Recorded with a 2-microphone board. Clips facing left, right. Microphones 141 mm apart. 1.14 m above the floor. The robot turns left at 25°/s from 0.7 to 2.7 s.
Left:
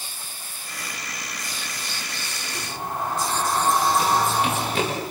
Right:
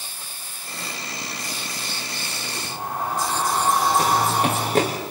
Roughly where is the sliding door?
Centre.